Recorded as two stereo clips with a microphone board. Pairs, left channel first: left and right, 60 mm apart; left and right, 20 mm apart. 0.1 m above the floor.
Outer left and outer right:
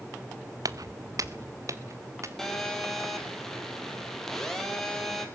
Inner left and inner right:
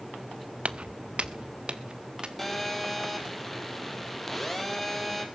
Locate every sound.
0.7 s footsteps: 75° right (ahead or behind), 0.5 m; by 2.3 s 55° right (ahead or behind), 2 m
2.4 s a phone buzzing: 5° left (ahead or behind), 3 m